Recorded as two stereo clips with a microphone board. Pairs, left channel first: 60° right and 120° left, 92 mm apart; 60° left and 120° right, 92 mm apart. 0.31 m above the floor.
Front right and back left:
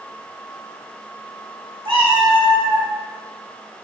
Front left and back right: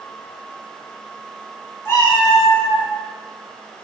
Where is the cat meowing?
120° left, 1.4 m; by 2.9 s 100° left, 1.6 m.